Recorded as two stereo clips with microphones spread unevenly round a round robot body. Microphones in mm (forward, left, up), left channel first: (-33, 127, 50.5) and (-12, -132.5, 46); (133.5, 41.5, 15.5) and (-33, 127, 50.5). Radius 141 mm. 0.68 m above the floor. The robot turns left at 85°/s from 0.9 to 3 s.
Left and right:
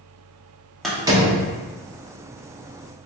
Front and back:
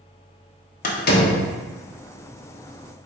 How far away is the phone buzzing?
I don't hear a phone buzzing.